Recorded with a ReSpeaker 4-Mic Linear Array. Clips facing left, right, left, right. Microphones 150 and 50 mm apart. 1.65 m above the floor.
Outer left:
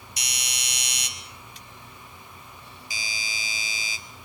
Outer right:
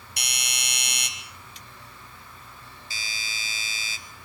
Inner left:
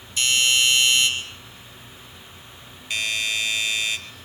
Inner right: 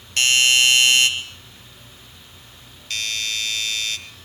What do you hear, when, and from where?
0.2 s a doorbell: 60° right (ahead or behind), 4 m
2.9 s a doorbell: 15° left (ahead or behind), 3 m